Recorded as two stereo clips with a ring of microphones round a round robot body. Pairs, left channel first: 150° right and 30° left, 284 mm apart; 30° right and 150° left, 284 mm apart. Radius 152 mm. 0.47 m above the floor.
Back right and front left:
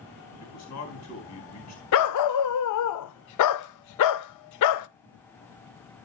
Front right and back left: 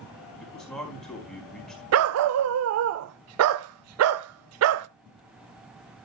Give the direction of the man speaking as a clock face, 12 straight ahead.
4 o'clock.